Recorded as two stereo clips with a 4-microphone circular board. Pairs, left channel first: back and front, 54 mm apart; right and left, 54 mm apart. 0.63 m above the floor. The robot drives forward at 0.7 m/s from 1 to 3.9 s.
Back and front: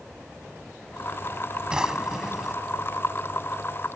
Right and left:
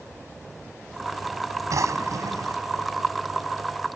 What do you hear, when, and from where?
1.7 s a drawer: 75° left; by 2.6 s 85° left